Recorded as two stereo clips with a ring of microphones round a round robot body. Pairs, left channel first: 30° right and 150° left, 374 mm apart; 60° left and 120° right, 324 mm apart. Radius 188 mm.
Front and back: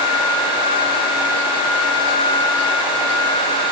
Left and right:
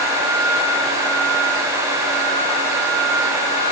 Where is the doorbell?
No doorbell in this recording.